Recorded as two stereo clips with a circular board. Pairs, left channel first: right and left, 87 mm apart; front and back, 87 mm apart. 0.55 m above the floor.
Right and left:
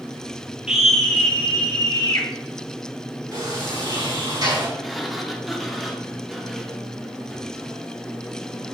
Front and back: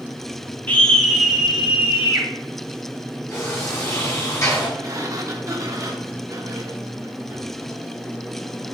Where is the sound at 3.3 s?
55° left, 3.5 m.